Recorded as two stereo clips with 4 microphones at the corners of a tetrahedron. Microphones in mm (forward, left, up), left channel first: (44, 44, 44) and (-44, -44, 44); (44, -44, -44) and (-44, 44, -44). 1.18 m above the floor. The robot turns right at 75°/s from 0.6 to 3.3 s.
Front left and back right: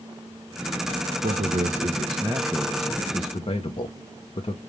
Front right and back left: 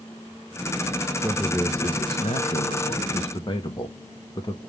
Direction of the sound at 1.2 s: 145° right.